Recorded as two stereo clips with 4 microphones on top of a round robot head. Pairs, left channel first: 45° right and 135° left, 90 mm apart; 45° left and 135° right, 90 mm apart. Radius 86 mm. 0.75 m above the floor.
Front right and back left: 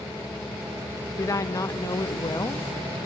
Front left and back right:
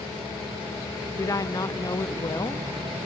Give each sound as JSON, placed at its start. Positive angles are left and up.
{"t": 1.1, "sound": "a woman speaking", "azimuth_deg": 0, "distance_m": 0.7}